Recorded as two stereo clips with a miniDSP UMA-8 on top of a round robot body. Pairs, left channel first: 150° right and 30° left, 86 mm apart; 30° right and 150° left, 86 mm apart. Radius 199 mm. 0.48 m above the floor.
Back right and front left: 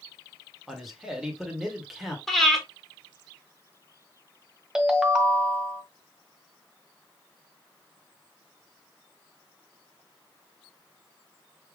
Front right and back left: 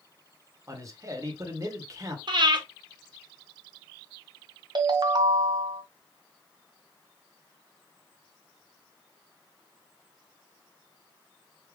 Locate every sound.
0.7 s a man speaking: 115° left, 1.8 m
2.3 s breathing: 120° left, 2.0 m
4.8 s a ringtone: 110° left, 0.8 m